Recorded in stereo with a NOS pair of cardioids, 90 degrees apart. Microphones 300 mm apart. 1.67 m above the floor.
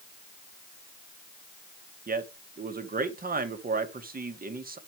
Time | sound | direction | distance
2.1 | a man speaking | 30° right | 2 m